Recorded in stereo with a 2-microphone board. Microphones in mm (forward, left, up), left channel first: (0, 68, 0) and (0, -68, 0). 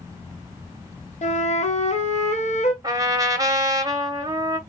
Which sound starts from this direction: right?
A trumpet, at 2.8 s.